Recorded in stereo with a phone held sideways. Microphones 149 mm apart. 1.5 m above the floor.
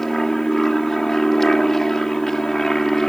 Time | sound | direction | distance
0.0 | an aircraft | centre (ahead or behind) | ?